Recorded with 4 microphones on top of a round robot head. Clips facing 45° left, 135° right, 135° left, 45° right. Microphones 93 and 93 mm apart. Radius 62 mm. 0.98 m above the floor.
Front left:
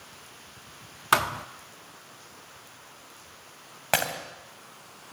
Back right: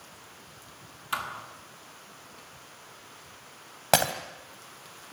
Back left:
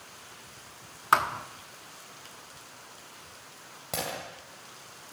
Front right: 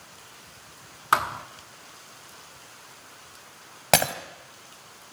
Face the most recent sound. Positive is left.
turn(degrees=-65)